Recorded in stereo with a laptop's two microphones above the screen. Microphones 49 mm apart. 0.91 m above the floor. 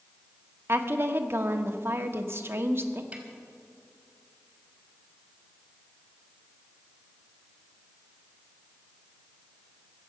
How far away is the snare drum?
About 3 m.